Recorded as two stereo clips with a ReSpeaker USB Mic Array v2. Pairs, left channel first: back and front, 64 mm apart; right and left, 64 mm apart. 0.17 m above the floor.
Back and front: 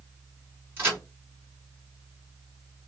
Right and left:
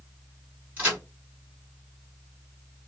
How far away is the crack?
About 1.8 m.